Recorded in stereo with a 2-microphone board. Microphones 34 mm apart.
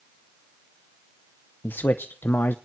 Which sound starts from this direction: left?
A man speaking, at 1.6 s.